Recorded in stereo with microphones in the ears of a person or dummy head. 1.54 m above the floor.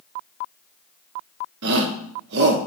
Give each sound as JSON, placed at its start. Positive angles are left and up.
{"t": 1.6, "sound": "a shout", "side_deg": -70, "distance_m": 0.9}